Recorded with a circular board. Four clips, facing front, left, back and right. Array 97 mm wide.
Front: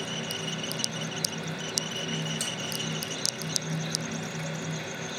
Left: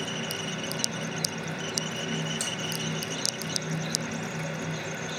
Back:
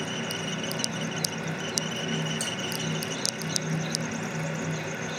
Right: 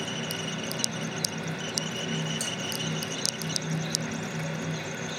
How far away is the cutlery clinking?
About 4.5 m.